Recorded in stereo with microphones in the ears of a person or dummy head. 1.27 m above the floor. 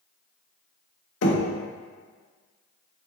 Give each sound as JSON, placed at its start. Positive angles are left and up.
{"t": 1.2, "sound": "knocking", "side_deg": 70, "distance_m": 1.0}